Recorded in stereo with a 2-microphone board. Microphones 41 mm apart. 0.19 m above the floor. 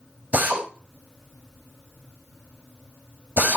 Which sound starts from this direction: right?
A drill, at 0.3 s.